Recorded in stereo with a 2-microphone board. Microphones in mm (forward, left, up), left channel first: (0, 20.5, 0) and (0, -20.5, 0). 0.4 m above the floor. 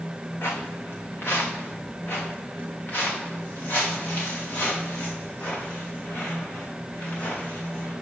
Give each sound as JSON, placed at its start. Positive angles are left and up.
{"t": 0.4, "sound": "footsteps", "side_deg": 60, "distance_m": 1.4}